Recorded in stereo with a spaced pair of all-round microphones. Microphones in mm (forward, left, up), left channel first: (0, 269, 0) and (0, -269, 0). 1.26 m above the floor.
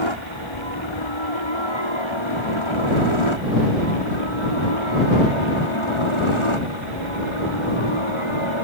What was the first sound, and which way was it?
A helicopter, 60° left (ahead or behind).